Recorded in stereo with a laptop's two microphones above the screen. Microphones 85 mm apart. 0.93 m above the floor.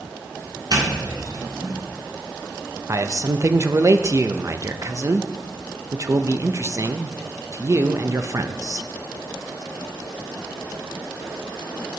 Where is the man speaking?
35° right (ahead or behind), 0.7 m.